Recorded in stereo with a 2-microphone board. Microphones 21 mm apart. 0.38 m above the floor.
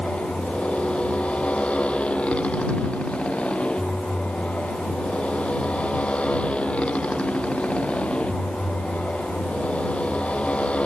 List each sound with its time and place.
0.0 s a motorcycle: 75° left (ahead or behind)